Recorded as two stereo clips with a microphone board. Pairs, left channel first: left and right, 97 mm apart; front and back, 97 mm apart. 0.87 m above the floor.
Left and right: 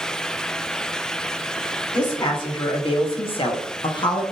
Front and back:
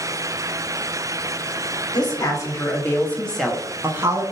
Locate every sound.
1.9 s a woman speaking: 50° left, 1.6 m; by 4.2 s 130° left, 0.9 m